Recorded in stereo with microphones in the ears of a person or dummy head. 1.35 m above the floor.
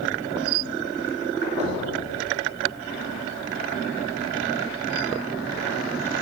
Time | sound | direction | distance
1.6 | knocking | 30° right (ahead or behind) | 1.8 m